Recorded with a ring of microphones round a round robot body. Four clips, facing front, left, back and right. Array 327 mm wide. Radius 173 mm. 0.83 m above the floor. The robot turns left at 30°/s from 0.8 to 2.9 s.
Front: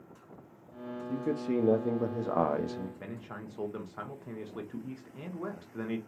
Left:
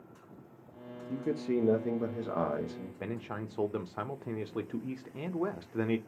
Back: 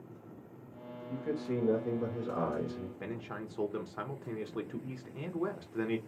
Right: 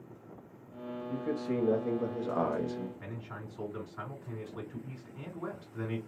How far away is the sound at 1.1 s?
About 0.8 m.